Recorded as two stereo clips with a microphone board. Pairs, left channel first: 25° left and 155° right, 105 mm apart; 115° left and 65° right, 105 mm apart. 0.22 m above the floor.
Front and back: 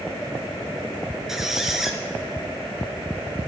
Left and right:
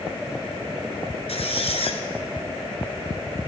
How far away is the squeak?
About 1.6 m.